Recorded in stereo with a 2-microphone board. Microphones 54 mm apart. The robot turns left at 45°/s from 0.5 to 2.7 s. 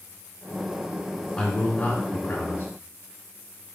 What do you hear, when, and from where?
1.4 s a man speaking: 125° left, 1.7 m; by 2.7 s 70° left, 1.7 m